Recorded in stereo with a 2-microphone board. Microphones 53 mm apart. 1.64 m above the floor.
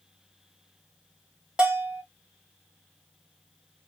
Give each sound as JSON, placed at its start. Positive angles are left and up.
{"t": 1.6, "sound": "a bell", "side_deg": -15, "distance_m": 1.2}